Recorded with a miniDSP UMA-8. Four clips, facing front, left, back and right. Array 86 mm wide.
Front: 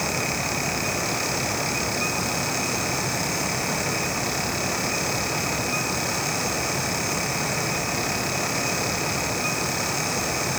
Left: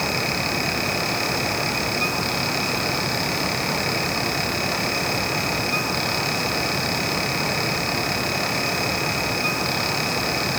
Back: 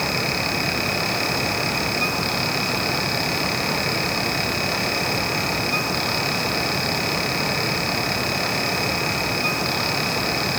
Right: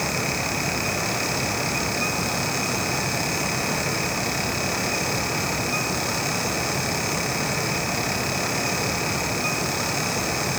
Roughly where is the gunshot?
I don't hear a gunshot.